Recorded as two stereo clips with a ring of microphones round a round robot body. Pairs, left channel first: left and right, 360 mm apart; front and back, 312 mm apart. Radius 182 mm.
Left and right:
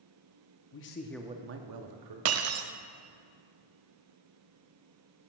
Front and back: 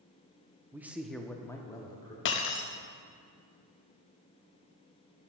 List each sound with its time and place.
0.7 s a man speaking: 100° left, 0.7 m; by 2.1 s 75° right, 1.1 m
2.2 s breaking glass: 45° right, 0.6 m